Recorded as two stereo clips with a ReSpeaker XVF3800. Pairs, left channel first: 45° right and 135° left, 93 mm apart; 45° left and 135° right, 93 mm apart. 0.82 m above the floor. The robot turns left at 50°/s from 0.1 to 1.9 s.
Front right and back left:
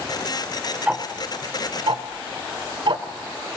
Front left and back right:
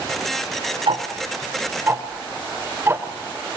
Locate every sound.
0.9 s ticking: 145° right, 1.2 m; by 3.0 s 160° left, 1.2 m